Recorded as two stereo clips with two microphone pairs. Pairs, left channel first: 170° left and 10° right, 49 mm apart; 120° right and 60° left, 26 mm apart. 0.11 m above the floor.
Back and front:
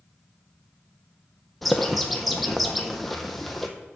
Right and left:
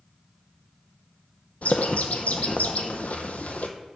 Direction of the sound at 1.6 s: 95° right.